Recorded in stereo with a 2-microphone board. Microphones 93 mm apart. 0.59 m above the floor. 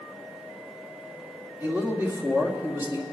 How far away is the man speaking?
About 1.8 m.